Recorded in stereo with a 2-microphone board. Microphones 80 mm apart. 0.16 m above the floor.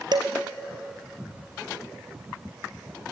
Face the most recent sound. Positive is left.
turn(degrees=-60)  # may be behind; listen again after turning